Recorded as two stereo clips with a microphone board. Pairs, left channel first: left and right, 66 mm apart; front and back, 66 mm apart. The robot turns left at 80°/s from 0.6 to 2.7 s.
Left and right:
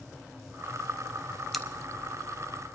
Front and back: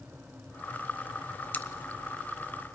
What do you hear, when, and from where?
1.5 s scissors: 5° left, 0.7 m; by 1.6 s 5° right, 0.7 m